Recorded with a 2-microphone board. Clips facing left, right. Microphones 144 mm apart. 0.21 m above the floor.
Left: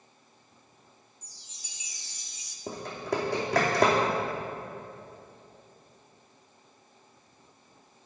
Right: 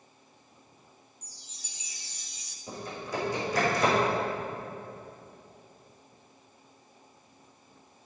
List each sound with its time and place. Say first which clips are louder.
1.2 s a chime: right 2 dB; 65° right (ahead or behind), 0.6 m
2.7 s typing on a keyboard: left 4 dB; 85° left, 2.5 m